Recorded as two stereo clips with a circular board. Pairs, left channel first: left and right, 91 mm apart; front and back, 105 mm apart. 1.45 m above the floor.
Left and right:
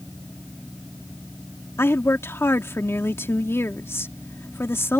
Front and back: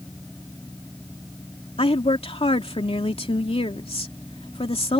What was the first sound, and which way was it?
A woman speaking, 25° left.